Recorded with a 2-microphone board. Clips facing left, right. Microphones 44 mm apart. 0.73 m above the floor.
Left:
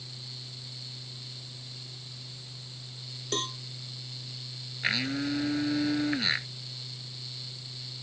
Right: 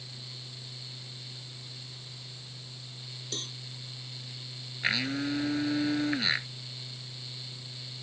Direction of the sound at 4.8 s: Centre (ahead or behind).